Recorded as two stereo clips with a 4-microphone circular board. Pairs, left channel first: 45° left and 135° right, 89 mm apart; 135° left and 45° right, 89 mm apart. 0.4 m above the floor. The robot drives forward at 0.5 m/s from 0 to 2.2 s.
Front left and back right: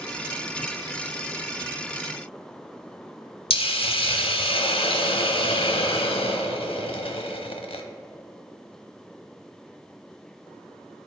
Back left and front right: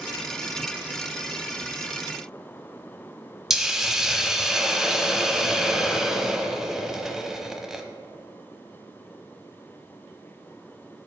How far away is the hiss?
About 0.7 m.